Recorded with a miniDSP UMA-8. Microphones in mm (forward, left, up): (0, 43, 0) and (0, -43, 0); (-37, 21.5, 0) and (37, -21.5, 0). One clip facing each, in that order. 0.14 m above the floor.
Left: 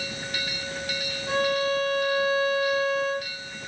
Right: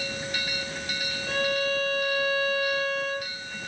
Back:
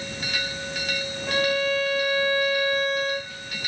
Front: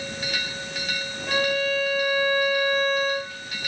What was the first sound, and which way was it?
A violin, 70° left.